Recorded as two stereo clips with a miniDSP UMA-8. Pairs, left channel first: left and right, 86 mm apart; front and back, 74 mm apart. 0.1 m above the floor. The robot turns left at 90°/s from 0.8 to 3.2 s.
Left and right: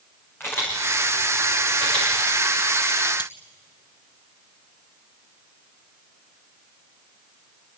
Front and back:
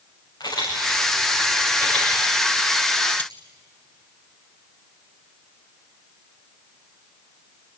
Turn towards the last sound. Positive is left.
turn(degrees=65)